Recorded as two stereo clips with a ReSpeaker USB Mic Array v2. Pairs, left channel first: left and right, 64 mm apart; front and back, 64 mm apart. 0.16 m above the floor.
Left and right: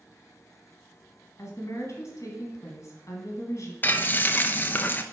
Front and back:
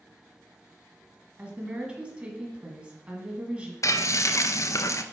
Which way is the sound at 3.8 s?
30° left.